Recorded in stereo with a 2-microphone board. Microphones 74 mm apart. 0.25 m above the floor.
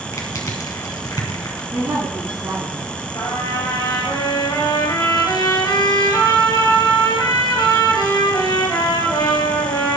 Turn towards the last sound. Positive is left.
turn(degrees=55)  # may be behind; listen again after turning